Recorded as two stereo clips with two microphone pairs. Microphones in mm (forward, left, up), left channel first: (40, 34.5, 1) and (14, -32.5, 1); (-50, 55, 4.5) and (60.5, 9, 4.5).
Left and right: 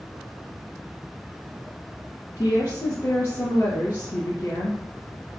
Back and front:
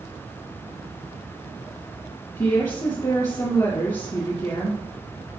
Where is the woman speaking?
110° left, 2.5 m.